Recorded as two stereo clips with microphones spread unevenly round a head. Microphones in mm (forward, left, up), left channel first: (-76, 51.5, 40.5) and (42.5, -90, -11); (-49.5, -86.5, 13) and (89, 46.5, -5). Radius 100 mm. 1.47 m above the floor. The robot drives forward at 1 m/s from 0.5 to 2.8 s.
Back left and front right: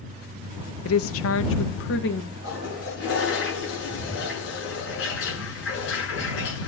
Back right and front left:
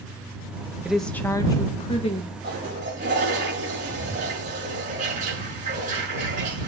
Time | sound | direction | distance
0.8 | a woman speaking | 130° left | 0.9 m
2.4 | a toilet flushing | 100° left | 7 m